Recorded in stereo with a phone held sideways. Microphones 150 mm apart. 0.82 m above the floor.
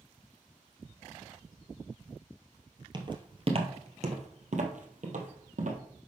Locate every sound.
2.9 s footsteps: 35° right (ahead or behind), 1.3 m; by 5.8 s 70° right (ahead or behind), 2.0 m